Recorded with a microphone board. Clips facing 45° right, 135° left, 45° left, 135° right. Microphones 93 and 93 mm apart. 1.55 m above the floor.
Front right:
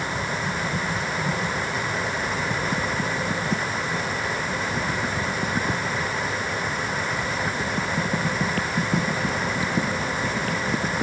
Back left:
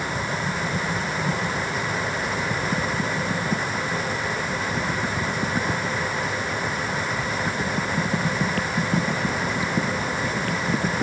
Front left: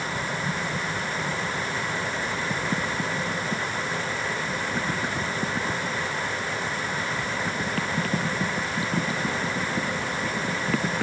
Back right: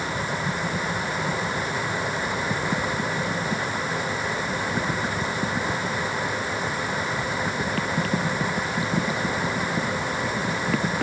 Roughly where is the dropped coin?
No dropped coin in this recording.